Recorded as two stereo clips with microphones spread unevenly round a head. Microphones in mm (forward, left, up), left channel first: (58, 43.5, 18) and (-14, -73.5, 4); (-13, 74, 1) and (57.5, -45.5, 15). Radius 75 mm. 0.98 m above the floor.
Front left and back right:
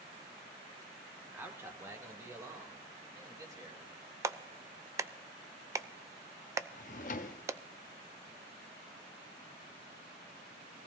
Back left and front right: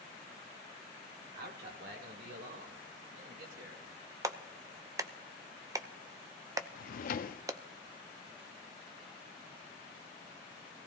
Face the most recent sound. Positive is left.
turn(degrees=95)